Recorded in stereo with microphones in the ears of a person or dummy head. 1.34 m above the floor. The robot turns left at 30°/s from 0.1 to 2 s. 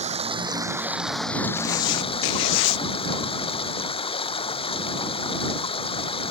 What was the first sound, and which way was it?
Running water, 150° right.